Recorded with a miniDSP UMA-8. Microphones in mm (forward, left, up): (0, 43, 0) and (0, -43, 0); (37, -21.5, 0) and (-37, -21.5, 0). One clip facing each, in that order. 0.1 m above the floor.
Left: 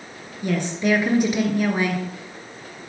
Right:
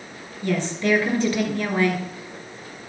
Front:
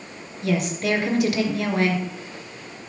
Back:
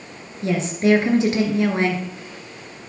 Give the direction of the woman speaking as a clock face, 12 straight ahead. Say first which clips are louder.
Left 1 dB, back 4 dB; 7 o'clock.